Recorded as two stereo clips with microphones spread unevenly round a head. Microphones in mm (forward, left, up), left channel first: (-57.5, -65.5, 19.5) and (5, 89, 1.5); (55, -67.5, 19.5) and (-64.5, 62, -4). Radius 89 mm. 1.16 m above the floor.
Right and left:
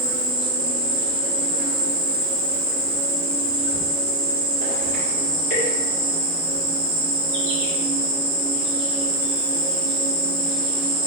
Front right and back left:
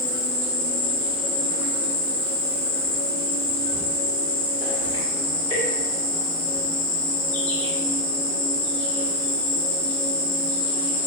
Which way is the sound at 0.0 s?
70° left.